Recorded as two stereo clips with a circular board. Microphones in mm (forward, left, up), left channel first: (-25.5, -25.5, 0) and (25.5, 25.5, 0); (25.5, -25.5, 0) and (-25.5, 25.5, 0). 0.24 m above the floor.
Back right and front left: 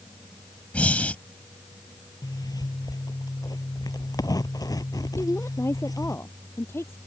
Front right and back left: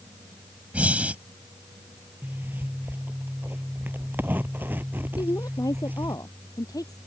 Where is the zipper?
165° right.